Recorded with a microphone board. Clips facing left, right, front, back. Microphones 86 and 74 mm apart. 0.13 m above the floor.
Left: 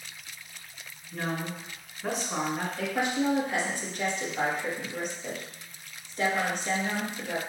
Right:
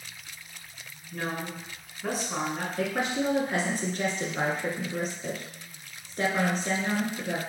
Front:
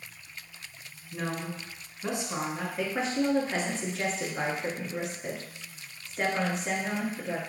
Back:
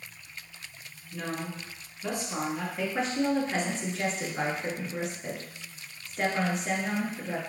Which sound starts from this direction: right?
A woman speaking, at 2.8 s.